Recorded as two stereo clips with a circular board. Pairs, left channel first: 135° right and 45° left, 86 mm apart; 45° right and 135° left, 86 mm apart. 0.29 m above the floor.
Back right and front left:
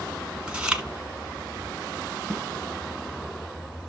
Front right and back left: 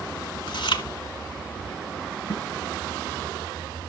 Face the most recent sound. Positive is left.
turn(degrees=-60)